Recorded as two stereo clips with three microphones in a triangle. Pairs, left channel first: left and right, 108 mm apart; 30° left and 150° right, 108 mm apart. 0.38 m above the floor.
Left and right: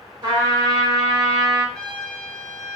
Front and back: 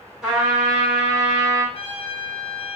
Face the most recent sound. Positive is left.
turn(degrees=10)